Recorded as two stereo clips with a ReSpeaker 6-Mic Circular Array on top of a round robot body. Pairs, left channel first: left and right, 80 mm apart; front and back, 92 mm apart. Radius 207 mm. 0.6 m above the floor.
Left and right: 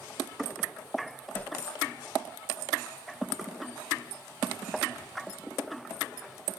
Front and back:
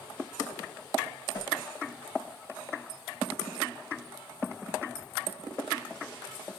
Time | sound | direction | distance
1.3 | a whoosh | 30° left | 1.5 m